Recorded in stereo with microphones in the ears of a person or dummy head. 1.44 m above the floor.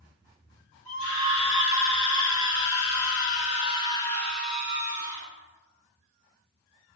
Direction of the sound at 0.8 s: 85° left.